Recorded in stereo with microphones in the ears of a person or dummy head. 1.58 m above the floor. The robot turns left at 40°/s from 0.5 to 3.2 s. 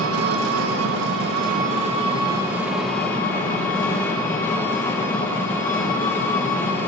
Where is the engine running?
90° right, 1.3 m; by 6.9 s 160° left, 1.3 m.